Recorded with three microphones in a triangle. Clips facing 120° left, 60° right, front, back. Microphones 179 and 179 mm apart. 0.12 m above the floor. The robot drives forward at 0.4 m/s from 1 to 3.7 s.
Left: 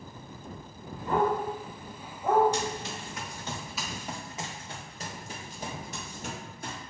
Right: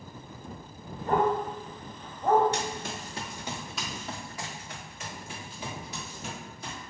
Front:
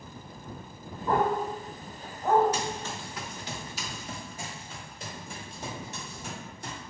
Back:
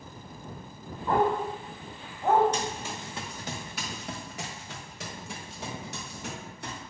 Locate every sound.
1.1 s a dog barking: 85° right, 1.2 m; by 2.4 s 115° right, 1.3 m
2.5 s running footsteps: 85° right, 1.0 m; by 6.8 s 155° left, 2.5 m